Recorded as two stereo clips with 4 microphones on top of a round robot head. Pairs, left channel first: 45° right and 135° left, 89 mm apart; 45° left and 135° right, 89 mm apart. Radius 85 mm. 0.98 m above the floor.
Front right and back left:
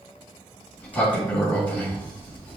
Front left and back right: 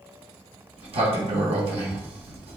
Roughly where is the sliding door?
Behind right.